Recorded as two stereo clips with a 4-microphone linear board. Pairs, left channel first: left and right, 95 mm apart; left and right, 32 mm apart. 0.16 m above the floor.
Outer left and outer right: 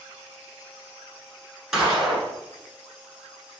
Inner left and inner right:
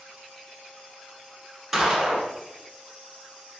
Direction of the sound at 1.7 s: 5° right (ahead or behind).